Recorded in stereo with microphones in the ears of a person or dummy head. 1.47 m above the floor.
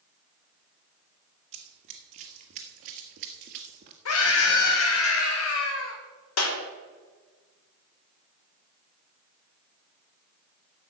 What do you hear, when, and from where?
1.5 s running footsteps: 35° right (ahead or behind), 2.5 m
4.0 s a scream: 75° left (ahead or behind), 1.5 m
6.4 s a clap: 85° left, 3.5 m